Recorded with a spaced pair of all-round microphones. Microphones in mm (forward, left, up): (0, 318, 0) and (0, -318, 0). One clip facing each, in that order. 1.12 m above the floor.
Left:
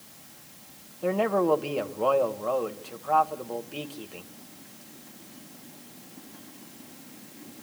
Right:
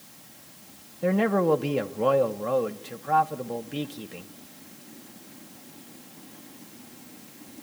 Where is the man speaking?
45° right (ahead or behind), 0.9 m.